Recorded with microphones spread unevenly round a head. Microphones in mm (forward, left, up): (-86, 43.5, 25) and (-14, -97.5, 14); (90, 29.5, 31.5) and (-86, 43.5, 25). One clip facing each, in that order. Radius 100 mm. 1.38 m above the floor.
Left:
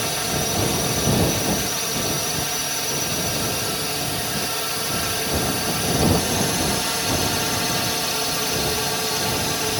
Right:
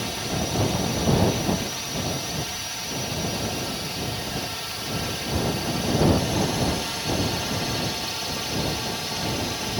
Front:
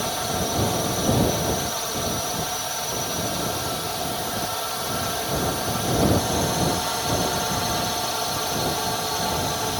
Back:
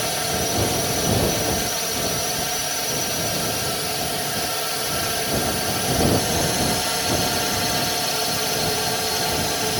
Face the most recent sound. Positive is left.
turn(degrees=115)